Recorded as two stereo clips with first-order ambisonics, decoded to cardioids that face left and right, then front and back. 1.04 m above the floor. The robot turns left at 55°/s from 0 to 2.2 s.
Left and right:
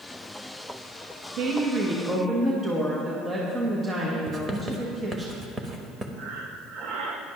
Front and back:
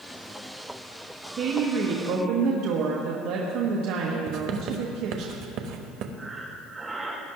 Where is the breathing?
100° right, 1.4 m.